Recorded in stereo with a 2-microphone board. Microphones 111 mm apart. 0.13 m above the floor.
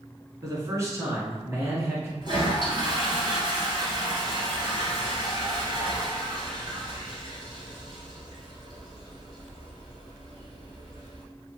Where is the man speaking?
30° right (ahead or behind), 1.3 m; by 2.1 s 20° right (ahead or behind), 1.5 m.